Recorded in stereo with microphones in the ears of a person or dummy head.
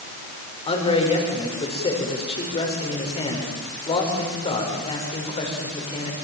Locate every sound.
0.7 s a man speaking: 30° left (ahead or behind), 6.5 m